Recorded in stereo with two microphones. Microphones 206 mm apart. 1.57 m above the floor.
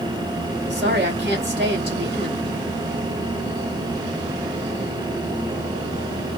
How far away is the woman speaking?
About 2.5 m.